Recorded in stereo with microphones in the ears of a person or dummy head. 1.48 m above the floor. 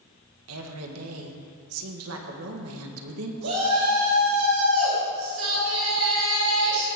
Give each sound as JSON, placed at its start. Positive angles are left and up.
{"t": 0.5, "sound": "a woman speaking", "side_deg": -80, "distance_m": 1.8}
{"t": 3.4, "sound": "a shout", "side_deg": -90, "distance_m": 6.0}